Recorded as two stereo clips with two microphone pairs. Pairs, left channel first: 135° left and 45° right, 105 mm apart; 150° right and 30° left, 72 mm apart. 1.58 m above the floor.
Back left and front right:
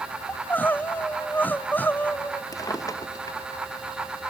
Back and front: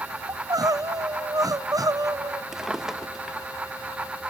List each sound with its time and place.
0.3 s crying: 60° left, 0.7 m
2.5 s a drawer: 115° left, 0.9 m